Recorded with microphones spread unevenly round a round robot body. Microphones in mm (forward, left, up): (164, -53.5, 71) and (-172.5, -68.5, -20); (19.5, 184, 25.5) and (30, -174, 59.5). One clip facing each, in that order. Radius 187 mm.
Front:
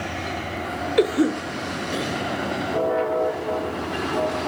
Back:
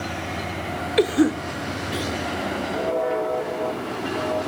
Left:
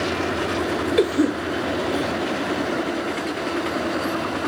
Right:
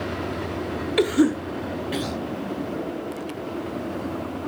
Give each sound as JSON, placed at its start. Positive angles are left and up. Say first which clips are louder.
{"t": 1.0, "sound": "a cough", "louder": "back 1 dB, right 1 dB", "azimuth_deg": -160, "distance_m": 0.8}